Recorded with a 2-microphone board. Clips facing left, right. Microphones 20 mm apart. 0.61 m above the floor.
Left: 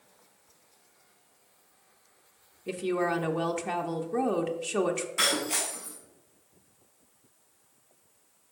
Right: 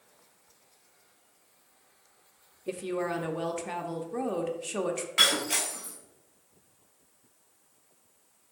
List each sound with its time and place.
2.7 s a woman speaking: 15° left (ahead or behind), 0.6 m
5.2 s breaking glass: 80° right, 2 m